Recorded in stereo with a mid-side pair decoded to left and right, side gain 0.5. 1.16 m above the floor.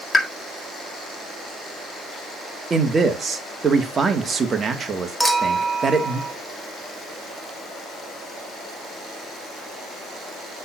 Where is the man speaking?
35° right, 1.8 m.